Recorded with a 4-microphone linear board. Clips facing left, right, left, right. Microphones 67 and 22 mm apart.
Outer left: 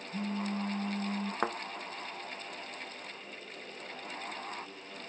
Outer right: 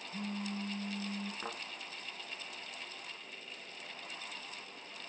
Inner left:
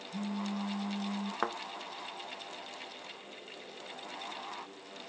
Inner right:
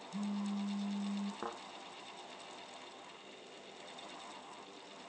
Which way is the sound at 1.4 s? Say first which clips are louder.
Outer left 10 dB, inner left 9 dB; 70° left (ahead or behind).